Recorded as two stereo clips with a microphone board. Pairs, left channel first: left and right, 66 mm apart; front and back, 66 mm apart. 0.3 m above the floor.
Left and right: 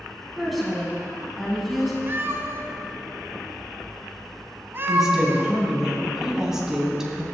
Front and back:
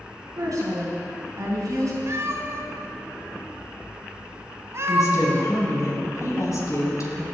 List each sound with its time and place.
0.4 s a woman speaking: straight behind, 3 m
2.1 s a cat meowing: 140° right, 1.0 m
4.9 s a woman speaking: 10° right, 2.5 m